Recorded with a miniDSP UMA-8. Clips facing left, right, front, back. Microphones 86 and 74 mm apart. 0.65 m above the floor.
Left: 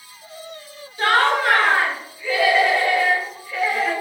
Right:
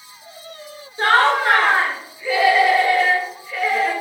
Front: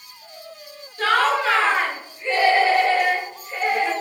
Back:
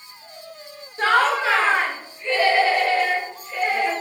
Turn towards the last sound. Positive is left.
turn(degrees=0)